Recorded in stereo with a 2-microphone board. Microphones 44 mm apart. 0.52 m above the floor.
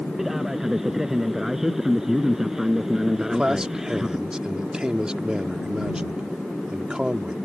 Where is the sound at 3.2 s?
20° right (ahead or behind).